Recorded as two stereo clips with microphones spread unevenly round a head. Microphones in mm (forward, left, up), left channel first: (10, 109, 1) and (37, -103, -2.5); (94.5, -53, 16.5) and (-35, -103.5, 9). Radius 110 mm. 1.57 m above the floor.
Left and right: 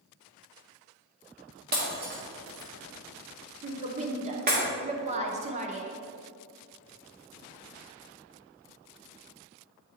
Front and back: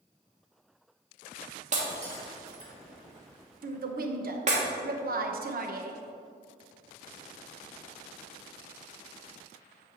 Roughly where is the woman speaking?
Behind right.